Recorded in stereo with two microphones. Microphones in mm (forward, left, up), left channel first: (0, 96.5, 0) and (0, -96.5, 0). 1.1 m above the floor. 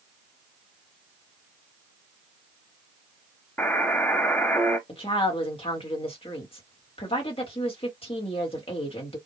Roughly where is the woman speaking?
Left.